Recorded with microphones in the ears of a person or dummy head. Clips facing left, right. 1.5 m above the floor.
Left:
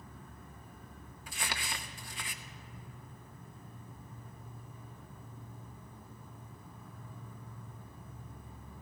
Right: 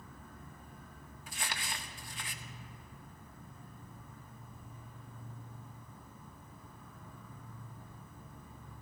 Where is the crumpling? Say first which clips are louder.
Left 2 dB; 50° left (ahead or behind), 0.7 m.